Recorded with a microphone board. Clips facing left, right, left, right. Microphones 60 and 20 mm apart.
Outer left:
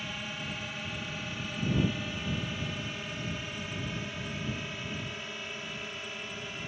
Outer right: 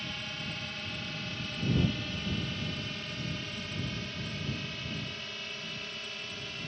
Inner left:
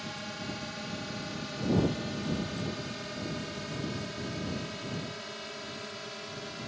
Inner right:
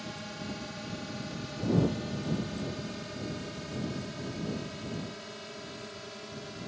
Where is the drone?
10° left (ahead or behind); by 6.7 s 15° left (ahead or behind).